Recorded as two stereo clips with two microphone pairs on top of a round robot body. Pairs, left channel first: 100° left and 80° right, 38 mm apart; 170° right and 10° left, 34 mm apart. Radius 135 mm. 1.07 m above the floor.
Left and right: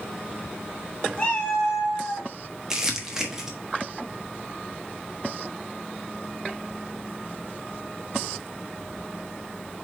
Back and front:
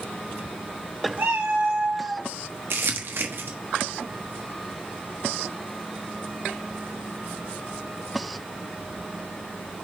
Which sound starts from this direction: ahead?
Crumpling, at 2.7 s.